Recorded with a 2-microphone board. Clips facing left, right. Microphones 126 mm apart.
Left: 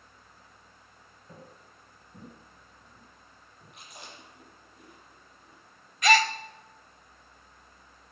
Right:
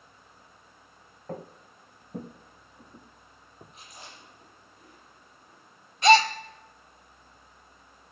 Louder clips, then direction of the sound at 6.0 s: Right 5 dB; 30° right (ahead or behind).